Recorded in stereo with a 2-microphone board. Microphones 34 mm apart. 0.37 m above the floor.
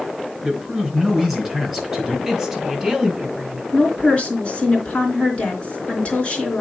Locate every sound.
0.4 s a man speaking: 5° right (ahead or behind), 4 m
2.2 s a woman speaking: 10° right (ahead or behind), 3 m
3.7 s a woman speaking: 30° left (ahead or behind), 3.5 m